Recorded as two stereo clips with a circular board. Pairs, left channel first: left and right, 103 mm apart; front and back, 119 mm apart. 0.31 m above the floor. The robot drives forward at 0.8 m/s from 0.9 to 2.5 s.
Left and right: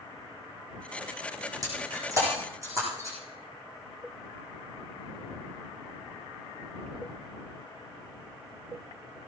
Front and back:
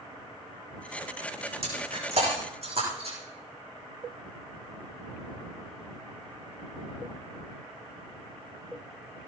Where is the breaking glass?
145° right, 9 m; by 3.2 s 150° right, 9.5 m.